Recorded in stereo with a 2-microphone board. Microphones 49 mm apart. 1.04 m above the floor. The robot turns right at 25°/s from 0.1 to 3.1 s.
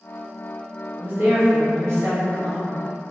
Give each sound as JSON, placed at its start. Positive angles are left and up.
{"t": 1.0, "sound": "a woman speaking", "azimuth_deg": -130, "distance_m": 1.1}